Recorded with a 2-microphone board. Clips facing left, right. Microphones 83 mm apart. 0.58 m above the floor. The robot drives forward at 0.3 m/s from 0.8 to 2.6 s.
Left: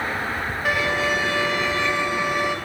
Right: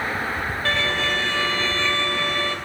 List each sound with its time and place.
0.7 s a violin: 10° left (ahead or behind), 2 m; by 2.6 s 15° left (ahead or behind), 1.7 m